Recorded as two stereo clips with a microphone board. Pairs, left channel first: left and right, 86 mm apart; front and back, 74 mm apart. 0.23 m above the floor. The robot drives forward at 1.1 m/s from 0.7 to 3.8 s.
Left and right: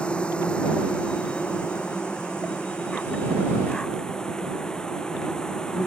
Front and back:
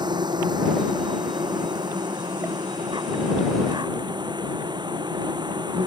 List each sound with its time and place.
0.0 s an insect: 170° left